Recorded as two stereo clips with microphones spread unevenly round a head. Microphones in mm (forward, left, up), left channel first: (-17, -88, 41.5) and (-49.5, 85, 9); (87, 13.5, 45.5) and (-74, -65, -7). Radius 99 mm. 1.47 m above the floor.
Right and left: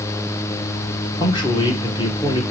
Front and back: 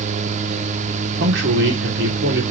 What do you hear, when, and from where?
1.2 s a man speaking: 145° right, 1.6 m